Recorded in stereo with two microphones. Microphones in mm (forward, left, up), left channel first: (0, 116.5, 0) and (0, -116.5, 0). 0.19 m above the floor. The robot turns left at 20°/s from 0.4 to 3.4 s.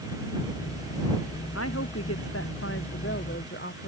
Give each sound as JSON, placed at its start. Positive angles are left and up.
{"t": 1.6, "sound": "a woman speaking", "azimuth_deg": 85}